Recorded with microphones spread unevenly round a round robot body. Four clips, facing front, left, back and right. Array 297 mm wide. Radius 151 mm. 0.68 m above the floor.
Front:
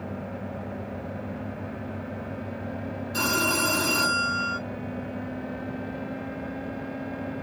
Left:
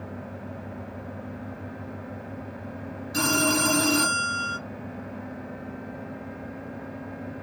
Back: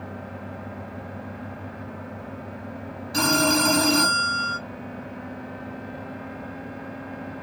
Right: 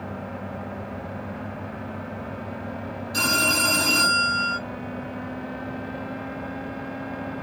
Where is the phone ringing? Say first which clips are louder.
Left 1 dB, back 5 dB; 175° left, 1.5 m.